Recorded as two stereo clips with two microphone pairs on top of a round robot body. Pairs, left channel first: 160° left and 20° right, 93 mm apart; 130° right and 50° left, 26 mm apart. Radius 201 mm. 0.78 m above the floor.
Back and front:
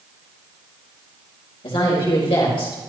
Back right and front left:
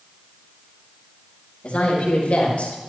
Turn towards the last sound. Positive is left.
turn(degrees=-170)